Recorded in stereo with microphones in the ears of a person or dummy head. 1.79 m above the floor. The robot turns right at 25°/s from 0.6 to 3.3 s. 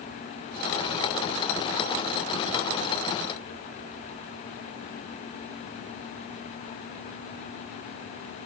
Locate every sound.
Only background noise.